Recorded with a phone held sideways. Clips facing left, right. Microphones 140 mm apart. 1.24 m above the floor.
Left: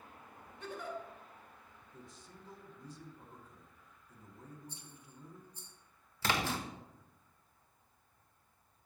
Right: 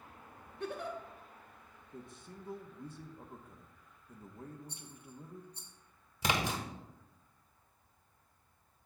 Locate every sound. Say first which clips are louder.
0.6 s a giggle: right 3 dB; 70° right (ahead or behind), 1.3 m
1.9 s a man speaking: right 6 dB; 60° right (ahead or behind), 1.1 m
4.7 s a rattle: right 4 dB; 75° right (ahead or behind), 1.4 m
6.2 s a splash: right 1 dB; 15° right (ahead or behind), 1.1 m